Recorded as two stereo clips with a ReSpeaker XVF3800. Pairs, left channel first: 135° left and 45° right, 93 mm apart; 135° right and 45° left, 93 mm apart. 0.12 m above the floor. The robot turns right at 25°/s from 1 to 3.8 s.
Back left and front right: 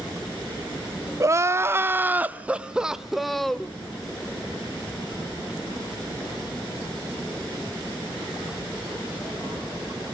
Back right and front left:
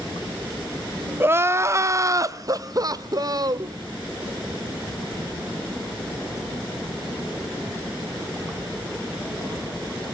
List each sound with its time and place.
1.2 s crying: 5° right, 0.6 m; by 3.7 s 55° left, 0.6 m